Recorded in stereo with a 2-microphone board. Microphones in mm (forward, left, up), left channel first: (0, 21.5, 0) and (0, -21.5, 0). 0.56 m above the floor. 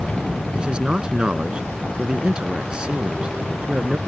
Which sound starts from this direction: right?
A man speaking, at 0.6 s.